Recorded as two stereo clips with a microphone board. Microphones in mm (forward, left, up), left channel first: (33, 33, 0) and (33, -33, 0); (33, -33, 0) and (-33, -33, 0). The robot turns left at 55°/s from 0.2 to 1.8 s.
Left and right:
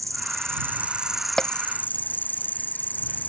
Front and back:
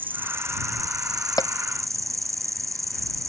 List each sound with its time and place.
0.0 s an insect: 120° right; by 3.3 s 150° left
1.4 s a bell: 10° left; by 1.7 s 5° right